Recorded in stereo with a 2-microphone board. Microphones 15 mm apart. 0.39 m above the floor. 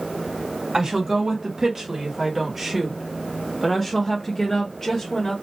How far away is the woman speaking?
About 1.9 m.